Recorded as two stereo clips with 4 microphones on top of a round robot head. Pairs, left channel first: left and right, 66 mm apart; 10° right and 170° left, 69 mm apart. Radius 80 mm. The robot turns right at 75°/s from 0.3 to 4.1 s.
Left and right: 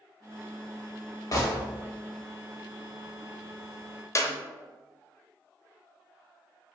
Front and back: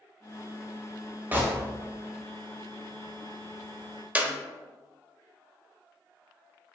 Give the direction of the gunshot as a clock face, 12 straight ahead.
8 o'clock.